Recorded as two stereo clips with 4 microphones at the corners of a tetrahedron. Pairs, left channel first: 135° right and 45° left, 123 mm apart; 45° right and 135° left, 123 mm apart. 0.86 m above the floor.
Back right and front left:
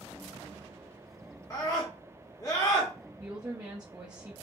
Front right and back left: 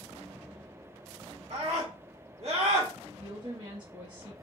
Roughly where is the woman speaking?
Left.